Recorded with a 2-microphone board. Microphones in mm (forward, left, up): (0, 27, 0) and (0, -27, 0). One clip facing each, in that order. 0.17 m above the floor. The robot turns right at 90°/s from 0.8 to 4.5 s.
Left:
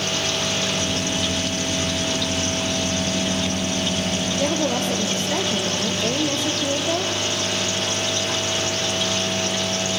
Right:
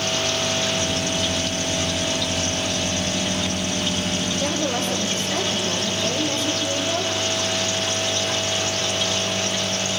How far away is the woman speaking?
About 4 m.